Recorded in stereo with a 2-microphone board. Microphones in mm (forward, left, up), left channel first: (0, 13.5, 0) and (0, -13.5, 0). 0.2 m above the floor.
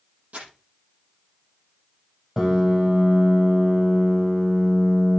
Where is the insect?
I don't hear an insect.